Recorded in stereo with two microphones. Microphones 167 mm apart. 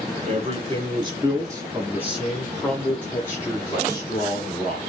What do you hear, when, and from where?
0.3 s a man speaking: 35° right (ahead or behind), 1.7 m; by 4.8 s 30° left (ahead or behind), 2 m